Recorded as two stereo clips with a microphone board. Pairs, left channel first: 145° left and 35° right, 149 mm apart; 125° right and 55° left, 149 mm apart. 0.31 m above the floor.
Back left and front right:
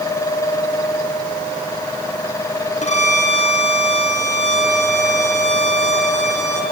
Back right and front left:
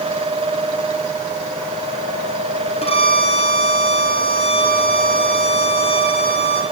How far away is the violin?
About 3.5 m.